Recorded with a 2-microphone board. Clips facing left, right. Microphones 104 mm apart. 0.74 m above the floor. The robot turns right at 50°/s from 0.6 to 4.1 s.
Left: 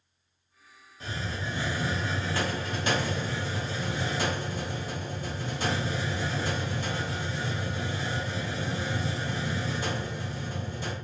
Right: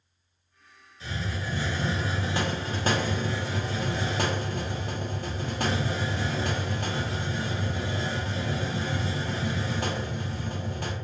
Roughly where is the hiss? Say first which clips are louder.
Right 1 dB; behind left.